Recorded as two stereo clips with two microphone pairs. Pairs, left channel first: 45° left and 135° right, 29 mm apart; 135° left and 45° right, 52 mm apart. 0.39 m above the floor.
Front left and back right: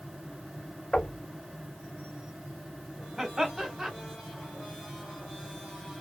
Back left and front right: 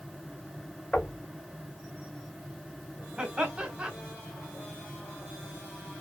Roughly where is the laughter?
Right.